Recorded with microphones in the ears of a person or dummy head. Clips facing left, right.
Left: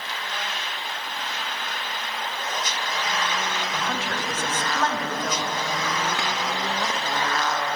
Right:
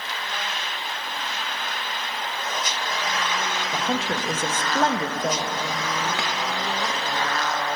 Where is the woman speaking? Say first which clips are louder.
Right 3 dB; 25° right (ahead or behind), 0.5 m.